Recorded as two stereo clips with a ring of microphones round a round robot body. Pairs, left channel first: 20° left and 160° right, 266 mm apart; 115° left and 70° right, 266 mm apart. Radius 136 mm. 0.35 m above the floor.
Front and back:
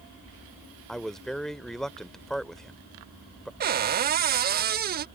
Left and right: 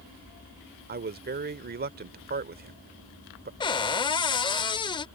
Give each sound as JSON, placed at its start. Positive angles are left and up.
{"t": 0.9, "sound": "a man speaking", "azimuth_deg": -65}
{"t": 3.6, "sound": "a cupboard door", "azimuth_deg": 175}